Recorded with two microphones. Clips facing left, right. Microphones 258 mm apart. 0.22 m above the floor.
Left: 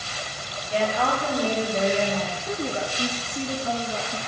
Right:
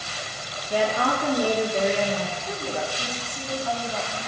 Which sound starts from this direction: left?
A woman speaking, at 2.5 s.